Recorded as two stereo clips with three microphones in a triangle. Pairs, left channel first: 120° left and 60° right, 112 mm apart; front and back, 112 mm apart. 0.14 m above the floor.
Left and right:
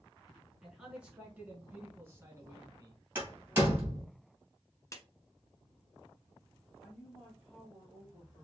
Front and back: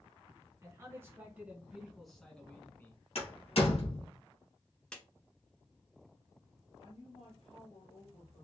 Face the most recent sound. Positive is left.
turn(degrees=25)